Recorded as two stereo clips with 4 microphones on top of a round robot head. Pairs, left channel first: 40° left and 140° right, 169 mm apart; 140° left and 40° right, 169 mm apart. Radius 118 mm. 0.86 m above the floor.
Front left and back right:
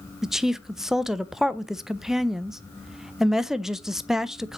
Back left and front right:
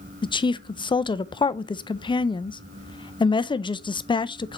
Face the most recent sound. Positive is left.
turn(degrees=130)